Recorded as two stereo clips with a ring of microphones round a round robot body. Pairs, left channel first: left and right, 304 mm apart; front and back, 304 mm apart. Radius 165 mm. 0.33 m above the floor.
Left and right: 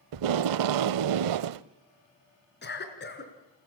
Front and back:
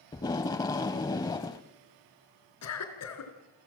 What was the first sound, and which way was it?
Tape being pulled, 80° right.